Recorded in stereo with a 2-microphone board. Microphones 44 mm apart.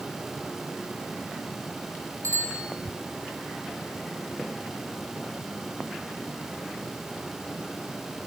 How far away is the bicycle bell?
About 7 m.